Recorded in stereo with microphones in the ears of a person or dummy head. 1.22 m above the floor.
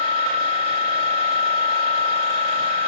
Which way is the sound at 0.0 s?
30° right (ahead or behind).